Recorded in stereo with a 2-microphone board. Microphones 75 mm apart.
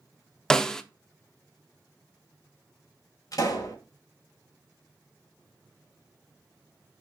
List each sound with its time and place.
0.5 s a snare drum: 10° left (ahead or behind), 0.7 m
3.3 s a pop: 55° left (ahead or behind), 4 m